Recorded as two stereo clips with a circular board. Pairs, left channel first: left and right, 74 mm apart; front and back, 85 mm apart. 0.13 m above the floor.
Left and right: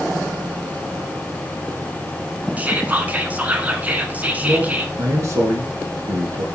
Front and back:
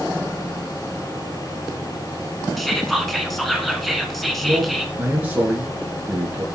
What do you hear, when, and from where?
2.6 s whispering: 85° right, 1.1 m
4.4 s a man speaking: 115° right, 2.5 m